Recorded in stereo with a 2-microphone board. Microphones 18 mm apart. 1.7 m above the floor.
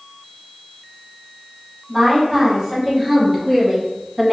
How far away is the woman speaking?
About 1.9 m.